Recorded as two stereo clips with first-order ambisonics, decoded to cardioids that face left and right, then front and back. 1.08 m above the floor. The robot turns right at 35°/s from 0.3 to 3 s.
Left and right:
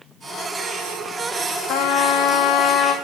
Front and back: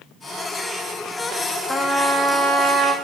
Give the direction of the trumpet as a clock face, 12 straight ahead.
9 o'clock.